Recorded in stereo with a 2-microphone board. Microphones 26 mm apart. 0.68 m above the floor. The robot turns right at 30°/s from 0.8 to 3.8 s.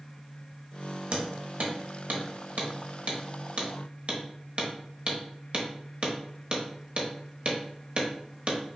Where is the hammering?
50° right (ahead or behind), 0.9 m.